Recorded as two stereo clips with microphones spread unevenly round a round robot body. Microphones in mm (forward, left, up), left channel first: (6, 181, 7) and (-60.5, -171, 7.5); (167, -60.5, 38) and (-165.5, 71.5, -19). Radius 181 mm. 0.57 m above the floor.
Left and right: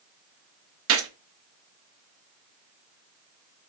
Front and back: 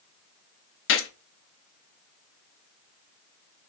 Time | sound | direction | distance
0.9 | a gunshot | 75° right | 0.7 m